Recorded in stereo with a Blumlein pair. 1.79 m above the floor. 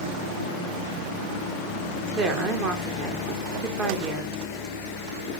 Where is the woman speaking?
25° right, 1.0 m.